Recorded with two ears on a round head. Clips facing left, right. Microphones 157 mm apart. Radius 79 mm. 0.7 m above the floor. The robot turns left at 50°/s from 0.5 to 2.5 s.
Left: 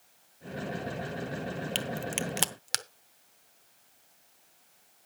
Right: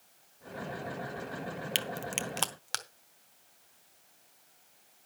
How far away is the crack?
About 0.8 m.